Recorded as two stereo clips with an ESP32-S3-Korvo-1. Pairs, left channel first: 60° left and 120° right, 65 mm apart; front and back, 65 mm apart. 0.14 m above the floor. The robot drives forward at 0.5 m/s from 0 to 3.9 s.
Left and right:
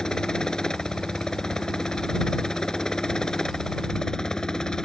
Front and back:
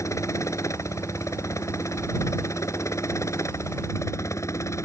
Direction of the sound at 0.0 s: 15° right.